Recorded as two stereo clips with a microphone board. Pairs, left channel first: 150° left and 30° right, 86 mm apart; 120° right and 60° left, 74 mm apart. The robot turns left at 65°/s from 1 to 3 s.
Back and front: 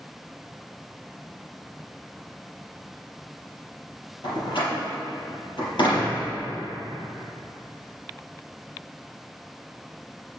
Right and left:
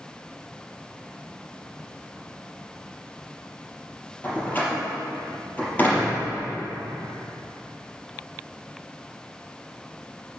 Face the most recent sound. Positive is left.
turn(degrees=175)